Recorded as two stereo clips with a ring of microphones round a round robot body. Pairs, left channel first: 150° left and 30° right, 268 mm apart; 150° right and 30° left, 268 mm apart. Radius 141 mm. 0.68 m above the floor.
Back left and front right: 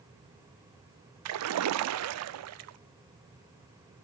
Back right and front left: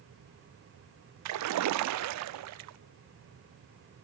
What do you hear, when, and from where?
1.2 s a splash: straight ahead, 0.6 m